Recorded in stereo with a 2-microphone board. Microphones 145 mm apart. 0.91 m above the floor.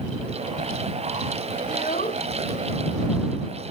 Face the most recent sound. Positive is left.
turn(degrees=90)